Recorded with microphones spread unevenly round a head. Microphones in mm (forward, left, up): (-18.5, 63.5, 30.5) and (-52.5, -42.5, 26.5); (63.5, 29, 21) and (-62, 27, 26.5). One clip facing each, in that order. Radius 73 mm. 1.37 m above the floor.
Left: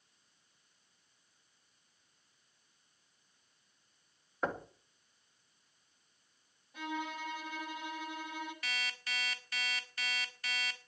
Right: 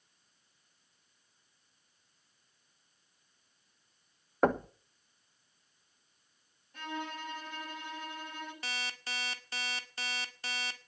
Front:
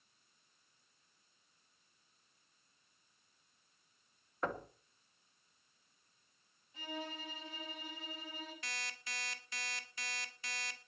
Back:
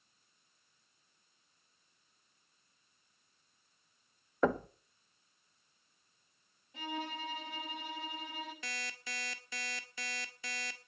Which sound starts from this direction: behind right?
Knocking, at 4.4 s.